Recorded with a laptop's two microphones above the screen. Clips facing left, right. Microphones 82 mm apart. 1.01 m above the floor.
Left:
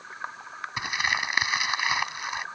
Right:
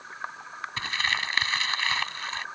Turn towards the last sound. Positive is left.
turn(degrees=15)  # may be behind; listen again after turning